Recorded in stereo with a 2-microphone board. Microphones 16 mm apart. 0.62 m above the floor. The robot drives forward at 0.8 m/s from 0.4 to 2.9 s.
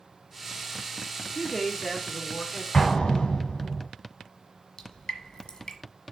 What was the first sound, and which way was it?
A man speaking, 30° left (ahead or behind).